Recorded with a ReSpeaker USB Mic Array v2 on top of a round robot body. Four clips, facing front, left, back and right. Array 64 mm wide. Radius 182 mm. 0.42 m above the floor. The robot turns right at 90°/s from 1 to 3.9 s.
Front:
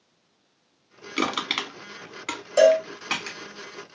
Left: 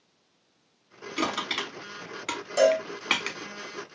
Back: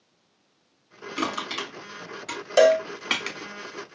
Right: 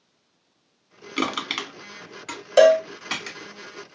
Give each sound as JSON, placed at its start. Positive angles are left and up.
{"t": 1.2, "sound": "crushing", "azimuth_deg": -65, "distance_m": 1.7}
{"t": 2.6, "sound": "a cowbell", "azimuth_deg": -115, "distance_m": 0.8}